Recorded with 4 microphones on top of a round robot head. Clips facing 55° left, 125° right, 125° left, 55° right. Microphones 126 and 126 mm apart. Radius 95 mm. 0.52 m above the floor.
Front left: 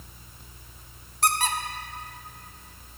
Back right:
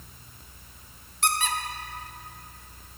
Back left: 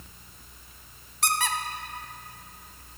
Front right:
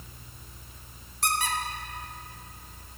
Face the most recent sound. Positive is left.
turn(degrees=110)